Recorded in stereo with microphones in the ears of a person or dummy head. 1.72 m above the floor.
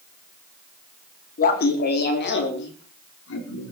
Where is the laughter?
45° left (ahead or behind), 4 m; by 3.7 s 75° left (ahead or behind), 5 m.